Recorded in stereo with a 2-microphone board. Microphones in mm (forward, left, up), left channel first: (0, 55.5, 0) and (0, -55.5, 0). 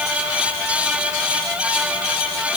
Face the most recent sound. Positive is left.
No sound to turn to.